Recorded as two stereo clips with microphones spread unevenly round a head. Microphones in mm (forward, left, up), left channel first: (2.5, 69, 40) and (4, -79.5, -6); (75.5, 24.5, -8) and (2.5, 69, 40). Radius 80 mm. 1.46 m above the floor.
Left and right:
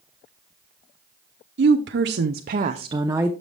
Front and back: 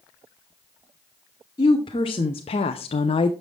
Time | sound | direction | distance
1.6 | a woman speaking | 90° right | 0.7 m